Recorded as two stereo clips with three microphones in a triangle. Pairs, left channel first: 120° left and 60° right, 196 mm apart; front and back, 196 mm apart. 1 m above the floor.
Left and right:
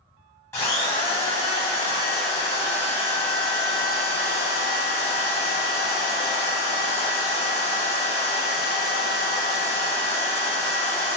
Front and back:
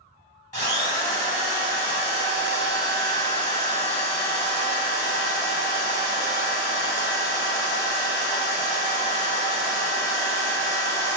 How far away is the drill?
About 1.0 m.